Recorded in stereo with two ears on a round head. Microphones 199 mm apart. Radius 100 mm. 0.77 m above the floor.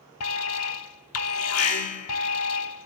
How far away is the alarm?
About 1.1 m.